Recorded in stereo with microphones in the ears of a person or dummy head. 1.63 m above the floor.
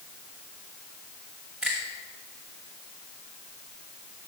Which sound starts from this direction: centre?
A finger snap, at 1.6 s.